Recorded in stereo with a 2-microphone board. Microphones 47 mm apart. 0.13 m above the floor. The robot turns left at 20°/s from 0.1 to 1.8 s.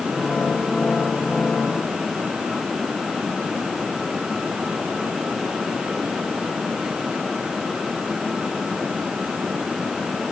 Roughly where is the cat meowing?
No cat meowing in this recording.